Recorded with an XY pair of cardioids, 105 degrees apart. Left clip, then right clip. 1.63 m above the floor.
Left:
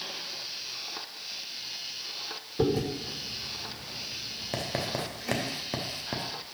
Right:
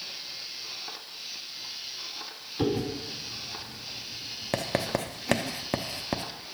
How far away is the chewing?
About 2.5 m.